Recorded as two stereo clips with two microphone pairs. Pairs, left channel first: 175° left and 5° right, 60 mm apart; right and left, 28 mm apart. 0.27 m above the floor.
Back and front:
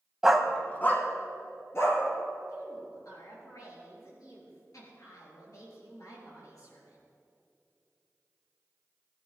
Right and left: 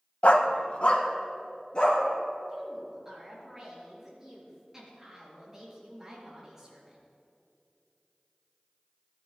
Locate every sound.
0.2 s a dog barking: 85° right, 0.7 m; by 2.0 s 145° right, 2.5 m
2.5 s a woman speaking: 160° left, 4 m